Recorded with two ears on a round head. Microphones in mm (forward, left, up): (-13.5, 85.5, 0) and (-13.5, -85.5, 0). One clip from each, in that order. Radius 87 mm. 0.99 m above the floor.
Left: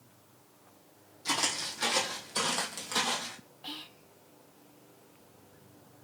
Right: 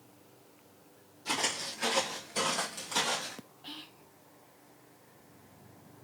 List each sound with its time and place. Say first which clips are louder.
1.2 s footsteps: left 2 dB; 40° left (ahead or behind), 2.5 m; by 3.4 s 5° left (ahead or behind), 2 m
3.6 s whispering: left 4 dB; 20° left (ahead or behind), 0.6 m